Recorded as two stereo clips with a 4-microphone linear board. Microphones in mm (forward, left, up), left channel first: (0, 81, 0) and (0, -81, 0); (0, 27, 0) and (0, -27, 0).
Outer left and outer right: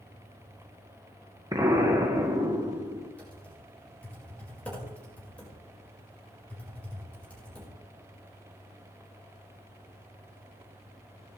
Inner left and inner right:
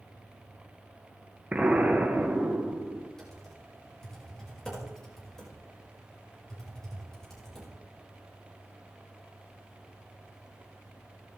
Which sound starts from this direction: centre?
Typing on a keyboard, at 3.2 s.